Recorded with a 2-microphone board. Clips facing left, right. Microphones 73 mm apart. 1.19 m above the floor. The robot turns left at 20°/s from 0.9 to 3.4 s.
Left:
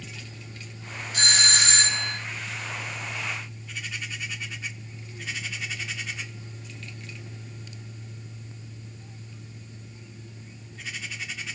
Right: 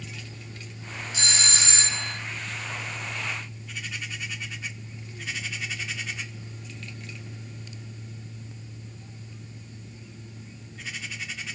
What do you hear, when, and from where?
1.1 s a doorbell: 55° left (ahead or behind), 1.0 m; by 2.2 s 60° left (ahead or behind), 1.0 m